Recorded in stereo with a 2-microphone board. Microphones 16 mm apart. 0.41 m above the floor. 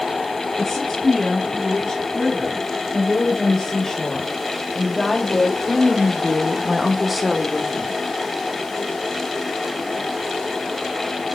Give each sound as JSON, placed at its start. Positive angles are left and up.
{"t": 0.6, "sound": "a woman speaking", "side_deg": 35, "distance_m": 4.5}